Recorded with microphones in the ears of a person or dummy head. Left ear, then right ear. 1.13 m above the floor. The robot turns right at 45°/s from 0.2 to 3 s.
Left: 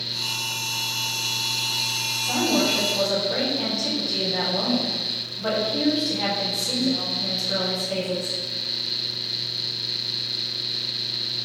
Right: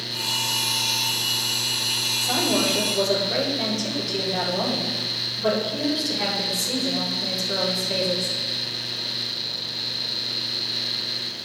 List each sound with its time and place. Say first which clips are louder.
2.2 s a woman speaking: left 2 dB; 70° right, 4 m; by 8.4 s 35° right, 4 m